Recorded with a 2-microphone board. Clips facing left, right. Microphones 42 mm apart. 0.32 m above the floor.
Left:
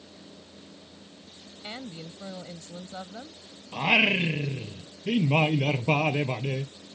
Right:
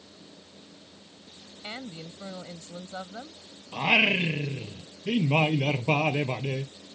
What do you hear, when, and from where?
1.6 s a woman speaking: 20° right (ahead or behind)
3.7 s singing: centre (ahead or behind)